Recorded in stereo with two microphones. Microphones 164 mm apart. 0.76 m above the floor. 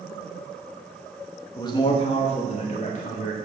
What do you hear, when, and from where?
1.6 s a man speaking: 25° left (ahead or behind), 0.8 m; by 3.4 s 50° left (ahead or behind), 1.6 m